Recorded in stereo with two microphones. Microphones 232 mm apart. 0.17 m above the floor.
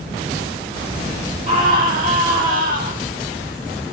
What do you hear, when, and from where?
1.5 s a scream: 35° right (ahead or behind), 5.5 m